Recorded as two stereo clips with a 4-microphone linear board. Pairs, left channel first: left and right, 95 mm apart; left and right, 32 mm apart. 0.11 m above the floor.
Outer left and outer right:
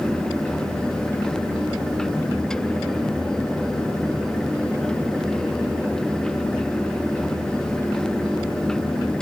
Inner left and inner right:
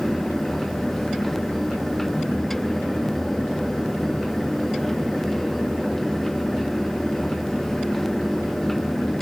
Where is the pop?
I don't hear a pop.